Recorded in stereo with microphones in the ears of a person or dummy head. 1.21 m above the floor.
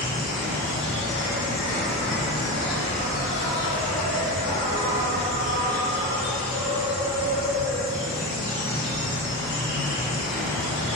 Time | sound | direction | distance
0.0 | an insect | 70° left (ahead or behind) | 1.5 m